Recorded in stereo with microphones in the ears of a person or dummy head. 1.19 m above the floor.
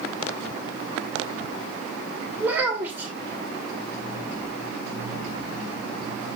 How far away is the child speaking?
About 3 m.